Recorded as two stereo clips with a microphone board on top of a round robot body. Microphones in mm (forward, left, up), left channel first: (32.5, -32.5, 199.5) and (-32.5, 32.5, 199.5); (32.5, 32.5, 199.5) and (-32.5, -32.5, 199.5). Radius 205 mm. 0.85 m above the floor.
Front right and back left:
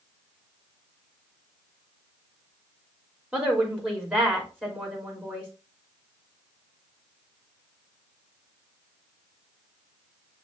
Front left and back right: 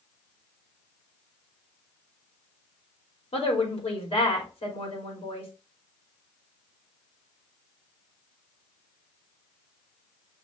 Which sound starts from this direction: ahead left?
A woman speaking, at 3.3 s.